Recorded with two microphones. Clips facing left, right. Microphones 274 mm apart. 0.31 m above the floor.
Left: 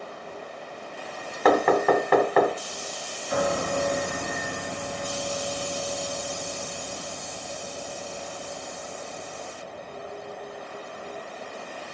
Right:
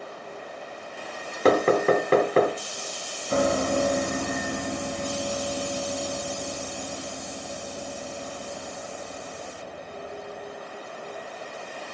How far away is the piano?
About 1.8 m.